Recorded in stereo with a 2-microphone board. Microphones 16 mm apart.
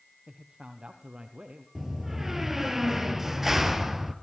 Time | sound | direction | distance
0.3 | a man speaking | 65° right (ahead or behind) | 4.5 m
1.8 | a door slam | 15° right (ahead or behind) | 2.5 m